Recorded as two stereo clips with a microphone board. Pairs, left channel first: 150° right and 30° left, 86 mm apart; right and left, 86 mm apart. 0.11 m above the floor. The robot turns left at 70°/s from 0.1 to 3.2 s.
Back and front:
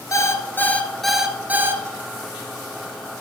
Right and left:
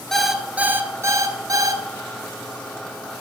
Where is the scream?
I don't hear a scream.